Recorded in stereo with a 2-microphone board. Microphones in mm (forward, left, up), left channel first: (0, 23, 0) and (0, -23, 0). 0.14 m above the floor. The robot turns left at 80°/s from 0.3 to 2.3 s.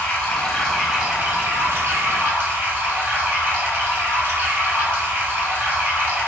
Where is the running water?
30° left, 1.3 m; by 6.3 s 130° right, 1.3 m.